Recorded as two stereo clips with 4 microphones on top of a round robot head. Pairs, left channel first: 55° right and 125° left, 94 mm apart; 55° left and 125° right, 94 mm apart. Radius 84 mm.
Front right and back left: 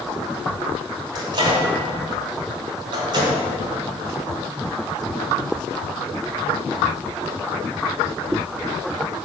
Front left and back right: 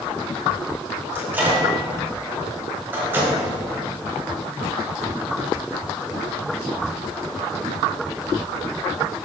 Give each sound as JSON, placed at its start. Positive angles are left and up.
{"t": 1.1, "sound": "a microwave", "azimuth_deg": 165, "distance_m": 1.8}